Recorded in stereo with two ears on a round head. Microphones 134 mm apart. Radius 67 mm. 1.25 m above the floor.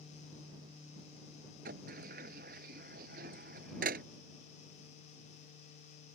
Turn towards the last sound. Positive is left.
turn(degrees=-60)  # may be behind; listen again after turning